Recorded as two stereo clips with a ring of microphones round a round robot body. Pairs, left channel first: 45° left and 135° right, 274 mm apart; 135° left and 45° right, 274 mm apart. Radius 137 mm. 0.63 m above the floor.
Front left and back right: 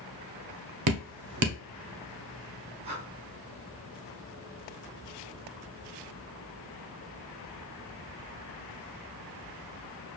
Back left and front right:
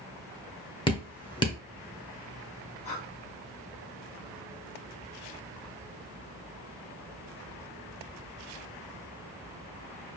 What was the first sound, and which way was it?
Dripping, 150° right.